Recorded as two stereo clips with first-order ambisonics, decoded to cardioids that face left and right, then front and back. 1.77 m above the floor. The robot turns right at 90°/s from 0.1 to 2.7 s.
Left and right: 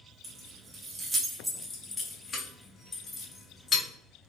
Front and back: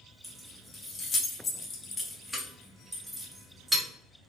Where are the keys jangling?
110° right, 0.6 m; by 3.9 s 110° left, 0.6 m.